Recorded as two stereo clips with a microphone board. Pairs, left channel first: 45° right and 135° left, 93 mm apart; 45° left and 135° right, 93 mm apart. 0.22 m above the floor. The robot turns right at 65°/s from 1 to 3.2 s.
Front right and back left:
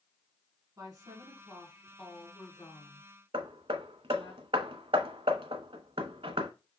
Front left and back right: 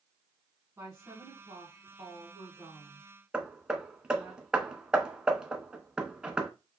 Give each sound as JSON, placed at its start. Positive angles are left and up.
{"t": 0.8, "sound": "a woman speaking", "azimuth_deg": 175, "distance_m": 2.0}
{"t": 3.3, "sound": "hammering", "azimuth_deg": 145, "distance_m": 0.7}